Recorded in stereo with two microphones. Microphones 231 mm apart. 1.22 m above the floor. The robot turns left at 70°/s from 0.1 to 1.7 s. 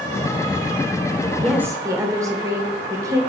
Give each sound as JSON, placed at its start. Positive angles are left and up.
{"t": 1.4, "sound": "a woman speaking", "side_deg": 5, "distance_m": 1.0}